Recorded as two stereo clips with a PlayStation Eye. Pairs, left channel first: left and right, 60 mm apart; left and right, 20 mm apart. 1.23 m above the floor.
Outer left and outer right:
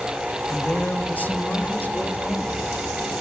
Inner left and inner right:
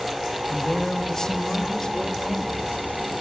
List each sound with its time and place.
0.5 s a woman speaking: 30° left (ahead or behind), 1.8 m